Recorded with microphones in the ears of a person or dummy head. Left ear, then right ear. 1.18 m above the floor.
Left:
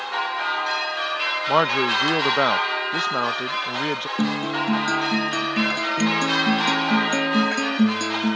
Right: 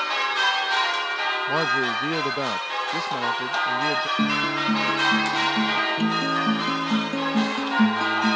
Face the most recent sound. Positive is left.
turn(degrees=60)  # may be behind; listen again after turning